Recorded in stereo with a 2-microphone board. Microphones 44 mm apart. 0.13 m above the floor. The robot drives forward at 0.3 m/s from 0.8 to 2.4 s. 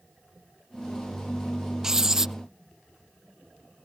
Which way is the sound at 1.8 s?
15° right (ahead or behind).